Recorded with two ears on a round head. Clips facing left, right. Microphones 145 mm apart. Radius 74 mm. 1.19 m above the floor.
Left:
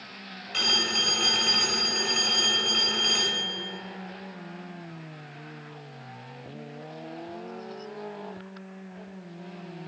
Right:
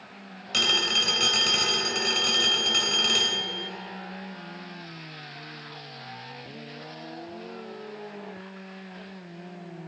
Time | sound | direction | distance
0.5 | a phone ringing | 50° right (ahead or behind) | 3 m